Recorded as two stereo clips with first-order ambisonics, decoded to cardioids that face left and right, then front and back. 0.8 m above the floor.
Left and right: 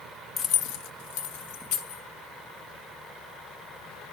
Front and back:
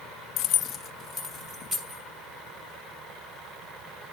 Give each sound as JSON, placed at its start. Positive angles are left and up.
{"t": 0.4, "sound": "keys jangling", "azimuth_deg": 25, "distance_m": 0.5}